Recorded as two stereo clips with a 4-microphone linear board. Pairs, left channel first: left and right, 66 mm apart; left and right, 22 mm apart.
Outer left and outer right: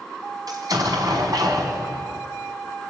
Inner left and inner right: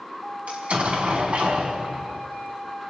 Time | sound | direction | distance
0.5 | an explosion | 75° right (ahead or behind) | 4.5 m